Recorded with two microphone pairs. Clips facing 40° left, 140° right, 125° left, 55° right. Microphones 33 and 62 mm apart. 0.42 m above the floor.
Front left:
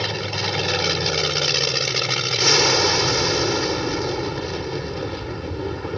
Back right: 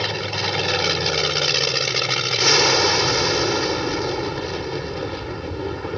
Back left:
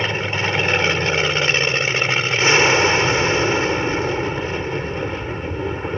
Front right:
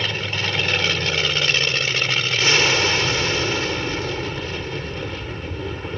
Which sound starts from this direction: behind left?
An aircraft, at 0.0 s.